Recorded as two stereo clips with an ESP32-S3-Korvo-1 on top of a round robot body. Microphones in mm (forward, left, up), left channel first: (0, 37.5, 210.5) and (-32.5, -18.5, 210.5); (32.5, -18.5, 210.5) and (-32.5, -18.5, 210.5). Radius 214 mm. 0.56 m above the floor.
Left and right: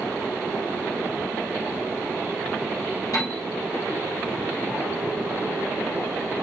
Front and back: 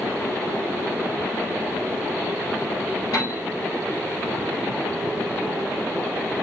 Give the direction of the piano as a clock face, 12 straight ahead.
11 o'clock.